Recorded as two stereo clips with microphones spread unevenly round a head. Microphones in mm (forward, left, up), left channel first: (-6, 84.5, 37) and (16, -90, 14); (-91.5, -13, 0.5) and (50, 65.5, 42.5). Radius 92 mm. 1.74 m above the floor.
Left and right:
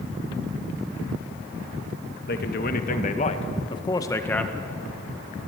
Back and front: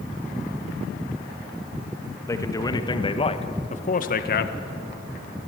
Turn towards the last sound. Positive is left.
turn(degrees=-175)